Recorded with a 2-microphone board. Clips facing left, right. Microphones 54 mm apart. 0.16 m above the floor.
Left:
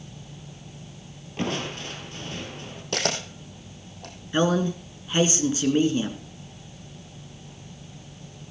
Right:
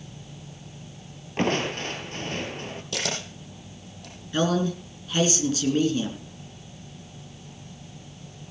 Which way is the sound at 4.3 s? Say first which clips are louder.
Left 1 dB; 25° left (ahead or behind).